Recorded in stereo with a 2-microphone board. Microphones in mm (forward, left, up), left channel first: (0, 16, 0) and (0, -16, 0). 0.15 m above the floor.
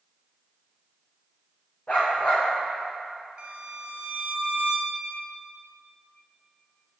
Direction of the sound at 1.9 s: 40° left (ahead or behind).